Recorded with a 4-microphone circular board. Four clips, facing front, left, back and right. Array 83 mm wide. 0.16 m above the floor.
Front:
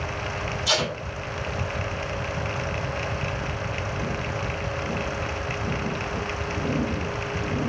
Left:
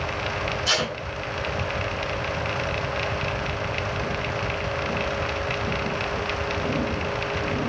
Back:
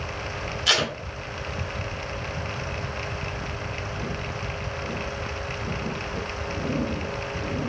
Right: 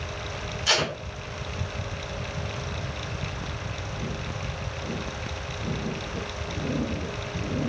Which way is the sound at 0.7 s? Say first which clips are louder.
Right 2 dB, back 2 dB; 170° right.